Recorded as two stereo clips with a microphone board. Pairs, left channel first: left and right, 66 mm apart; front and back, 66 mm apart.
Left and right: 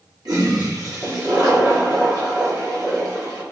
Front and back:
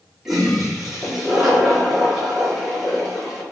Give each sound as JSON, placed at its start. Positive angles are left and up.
{"t": 0.2, "sound": "a toilet flushing", "azimuth_deg": -100, "distance_m": 3.5}